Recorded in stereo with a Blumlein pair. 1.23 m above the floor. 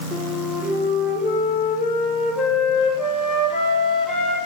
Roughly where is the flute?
Ahead.